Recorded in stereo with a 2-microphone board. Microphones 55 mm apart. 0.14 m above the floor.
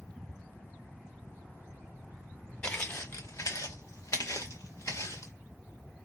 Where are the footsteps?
25° left (ahead or behind), 0.7 m; by 5.3 s 70° left (ahead or behind), 1.8 m.